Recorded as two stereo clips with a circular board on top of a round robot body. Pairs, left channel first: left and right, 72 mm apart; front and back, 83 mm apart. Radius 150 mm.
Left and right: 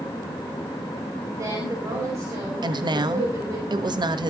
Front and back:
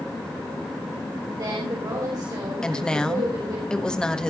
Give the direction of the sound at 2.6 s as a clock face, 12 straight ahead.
3 o'clock.